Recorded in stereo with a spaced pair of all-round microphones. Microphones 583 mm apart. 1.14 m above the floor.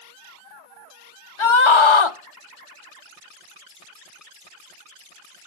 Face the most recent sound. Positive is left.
turn(degrees=55)  # may be behind; listen again after turning